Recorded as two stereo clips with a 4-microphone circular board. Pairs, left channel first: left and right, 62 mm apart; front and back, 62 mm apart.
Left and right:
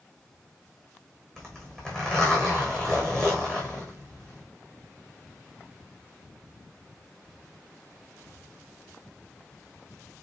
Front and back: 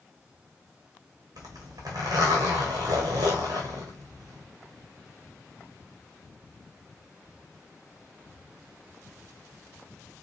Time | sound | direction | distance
1.4 | a zipper | 165° left | 2 m